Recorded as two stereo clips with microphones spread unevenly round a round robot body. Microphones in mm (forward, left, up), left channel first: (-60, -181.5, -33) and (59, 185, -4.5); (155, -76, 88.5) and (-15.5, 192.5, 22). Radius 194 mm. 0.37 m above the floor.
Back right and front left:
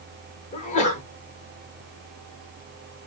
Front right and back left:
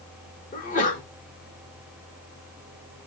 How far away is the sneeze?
About 0.8 m.